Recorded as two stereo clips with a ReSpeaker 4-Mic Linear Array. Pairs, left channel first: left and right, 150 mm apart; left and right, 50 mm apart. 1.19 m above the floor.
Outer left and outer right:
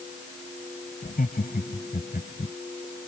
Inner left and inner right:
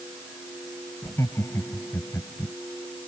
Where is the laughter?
75° left (ahead or behind).